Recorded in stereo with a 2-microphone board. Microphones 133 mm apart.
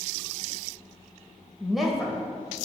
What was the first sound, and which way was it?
A woman speaking, centre (ahead or behind).